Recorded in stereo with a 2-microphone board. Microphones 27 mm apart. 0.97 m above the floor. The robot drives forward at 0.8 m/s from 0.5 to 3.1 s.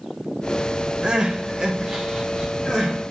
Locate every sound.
1.0 s crying: 30° right (ahead or behind), 0.7 m; by 2.9 s 10° right (ahead or behind), 1.8 m